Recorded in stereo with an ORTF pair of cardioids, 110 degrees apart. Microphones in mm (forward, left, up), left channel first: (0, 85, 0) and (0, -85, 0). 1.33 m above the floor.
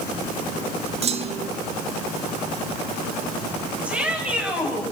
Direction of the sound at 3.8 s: 5° right.